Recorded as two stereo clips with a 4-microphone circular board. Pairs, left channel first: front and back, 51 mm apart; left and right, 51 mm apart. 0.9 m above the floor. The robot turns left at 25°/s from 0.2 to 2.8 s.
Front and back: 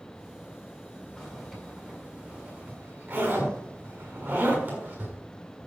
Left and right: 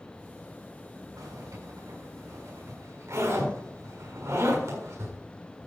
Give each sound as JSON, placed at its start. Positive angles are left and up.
{"t": 1.2, "sound": "a zipper", "azimuth_deg": -75, "distance_m": 7.0}